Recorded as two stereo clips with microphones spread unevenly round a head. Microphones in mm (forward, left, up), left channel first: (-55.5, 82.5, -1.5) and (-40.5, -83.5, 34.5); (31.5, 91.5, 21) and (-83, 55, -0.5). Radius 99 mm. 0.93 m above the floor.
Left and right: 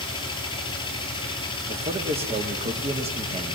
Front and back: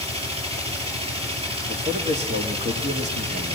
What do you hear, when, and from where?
0.0 s a machine running: 160° left, 6 m
1.7 s a man speaking: 140° right, 2.5 m